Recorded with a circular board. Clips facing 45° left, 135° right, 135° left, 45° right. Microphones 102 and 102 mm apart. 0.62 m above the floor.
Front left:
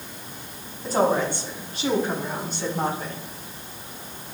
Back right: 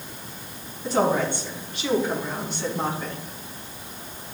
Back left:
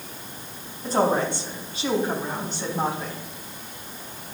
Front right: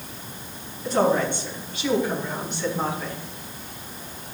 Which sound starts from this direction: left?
A woman speaking, at 0.8 s.